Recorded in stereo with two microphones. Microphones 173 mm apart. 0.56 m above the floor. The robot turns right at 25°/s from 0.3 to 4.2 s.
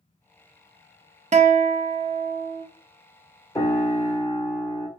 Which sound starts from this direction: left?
A piano, at 3.5 s.